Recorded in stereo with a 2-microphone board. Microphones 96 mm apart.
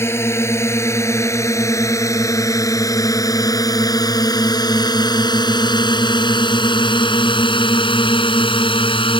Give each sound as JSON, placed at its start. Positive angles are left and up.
{"t": 0.0, "sound": "a drone", "side_deg": 25}